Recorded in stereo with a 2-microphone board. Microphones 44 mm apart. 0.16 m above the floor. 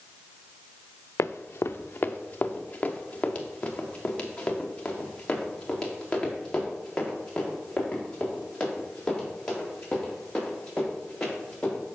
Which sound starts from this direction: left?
Running footsteps, at 1.2 s.